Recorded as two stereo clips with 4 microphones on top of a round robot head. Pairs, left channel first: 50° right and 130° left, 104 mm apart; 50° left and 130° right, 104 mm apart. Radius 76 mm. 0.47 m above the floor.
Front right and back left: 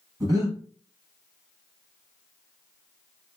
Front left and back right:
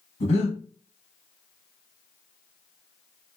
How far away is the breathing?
About 1.2 m.